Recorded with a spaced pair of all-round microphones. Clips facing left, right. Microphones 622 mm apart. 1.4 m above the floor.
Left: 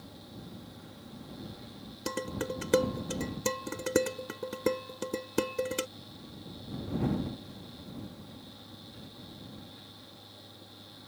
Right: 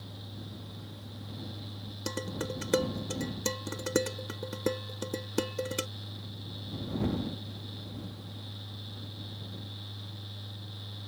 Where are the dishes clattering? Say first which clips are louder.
Left 1 dB; centre (ahead or behind).